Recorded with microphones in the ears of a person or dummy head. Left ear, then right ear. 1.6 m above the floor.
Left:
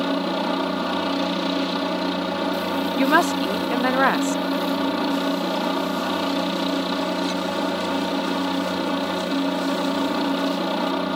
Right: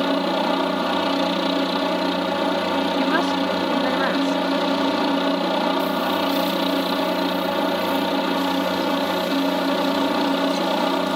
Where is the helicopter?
15° right (ahead or behind).